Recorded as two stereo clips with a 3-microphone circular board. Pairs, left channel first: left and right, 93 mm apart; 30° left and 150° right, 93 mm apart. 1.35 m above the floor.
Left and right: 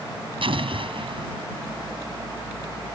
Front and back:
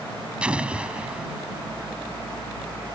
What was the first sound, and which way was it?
An explosion, 70° right.